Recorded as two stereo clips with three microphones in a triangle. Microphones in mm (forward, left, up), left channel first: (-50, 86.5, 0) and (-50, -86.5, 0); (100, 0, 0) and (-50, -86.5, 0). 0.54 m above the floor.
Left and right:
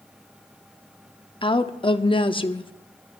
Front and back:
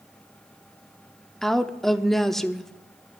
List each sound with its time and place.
1.4 s a woman speaking: 115° left, 0.7 m